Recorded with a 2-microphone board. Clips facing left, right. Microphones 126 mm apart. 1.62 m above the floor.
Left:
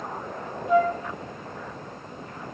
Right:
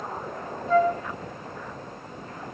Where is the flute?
15° left (ahead or behind), 1.9 m.